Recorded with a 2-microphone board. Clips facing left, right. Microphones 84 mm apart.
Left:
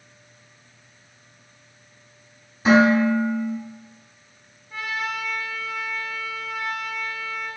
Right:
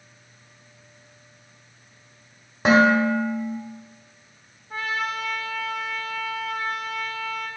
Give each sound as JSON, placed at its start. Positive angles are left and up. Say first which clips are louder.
{"t": 2.6, "sound": "dishes clattering", "louder": "left 1 dB", "side_deg": -75, "distance_m": 2.0}
{"t": 4.7, "sound": "a trumpet", "louder": "right 1 dB", "side_deg": -50, "distance_m": 1.1}